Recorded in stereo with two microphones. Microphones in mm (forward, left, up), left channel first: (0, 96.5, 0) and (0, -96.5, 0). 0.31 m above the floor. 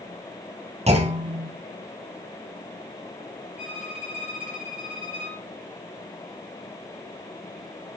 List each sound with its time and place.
0.9 s a clunk: 35° right (ahead or behind), 3 m
3.6 s a violin: 35° left (ahead or behind), 5.5 m